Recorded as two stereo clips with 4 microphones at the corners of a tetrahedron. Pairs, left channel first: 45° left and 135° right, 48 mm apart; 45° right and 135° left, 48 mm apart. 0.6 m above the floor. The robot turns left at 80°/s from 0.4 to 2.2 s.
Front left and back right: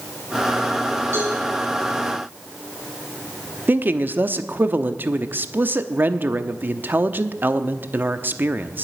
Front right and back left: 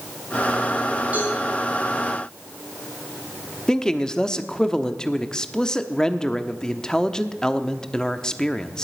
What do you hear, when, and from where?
1.1 s a cowbell: 165° right, 8.5 m; by 1.4 s 175° left, 8.5 m
3.7 s a man speaking: 110° right, 0.8 m